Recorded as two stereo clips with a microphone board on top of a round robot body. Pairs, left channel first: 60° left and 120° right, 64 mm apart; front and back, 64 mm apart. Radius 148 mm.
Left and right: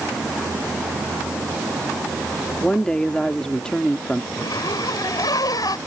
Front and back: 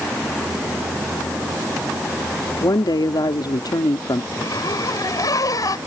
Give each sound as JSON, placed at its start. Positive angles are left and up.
{"t": 2.6, "sound": "a woman speaking", "azimuth_deg": -20}
{"t": 4.3, "sound": "a zipper", "azimuth_deg": 35}